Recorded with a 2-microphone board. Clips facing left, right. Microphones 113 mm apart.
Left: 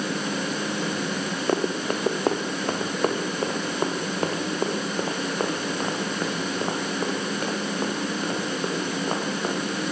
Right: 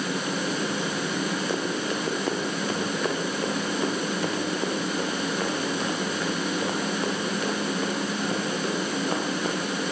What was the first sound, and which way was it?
Running footsteps, 65° left (ahead or behind).